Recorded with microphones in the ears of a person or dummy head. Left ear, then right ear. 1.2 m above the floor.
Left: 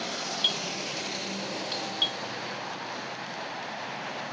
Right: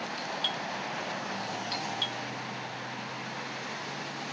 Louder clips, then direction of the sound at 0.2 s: Left 5 dB; 10° left (ahead or behind).